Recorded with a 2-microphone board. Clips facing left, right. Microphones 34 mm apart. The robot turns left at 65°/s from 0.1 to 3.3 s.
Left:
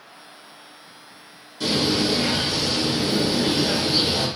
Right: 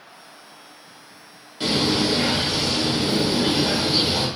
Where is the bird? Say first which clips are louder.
Right 1 dB; 35° right, 0.9 m; by 4.3 s 145° right, 0.9 m.